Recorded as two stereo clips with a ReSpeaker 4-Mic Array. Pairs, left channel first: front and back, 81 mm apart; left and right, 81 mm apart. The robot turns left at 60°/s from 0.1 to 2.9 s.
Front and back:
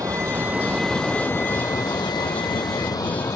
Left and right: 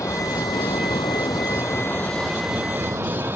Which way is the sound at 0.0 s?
135° left.